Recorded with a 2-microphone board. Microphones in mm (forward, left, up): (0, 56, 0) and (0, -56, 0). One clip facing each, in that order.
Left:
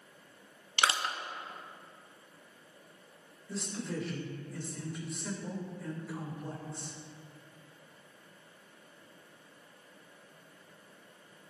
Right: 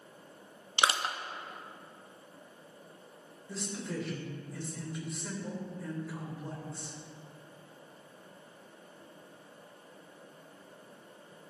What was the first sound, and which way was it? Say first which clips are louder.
Crushing: right 1 dB; 20° right (ahead or behind).